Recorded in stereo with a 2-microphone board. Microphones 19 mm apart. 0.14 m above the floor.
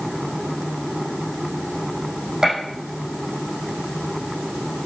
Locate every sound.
2.4 s a gunshot: 30° right (ahead or behind), 6 m